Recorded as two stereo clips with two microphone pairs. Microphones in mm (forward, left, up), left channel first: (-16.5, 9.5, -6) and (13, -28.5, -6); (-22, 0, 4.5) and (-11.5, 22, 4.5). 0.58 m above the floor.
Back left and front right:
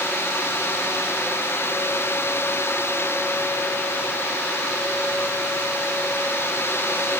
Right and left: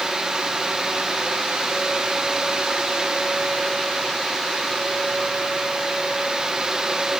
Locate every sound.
Only background noise.